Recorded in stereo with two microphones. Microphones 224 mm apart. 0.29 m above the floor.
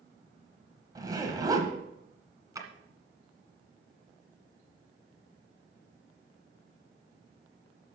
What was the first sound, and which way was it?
A zipper, 15° right (ahead or behind).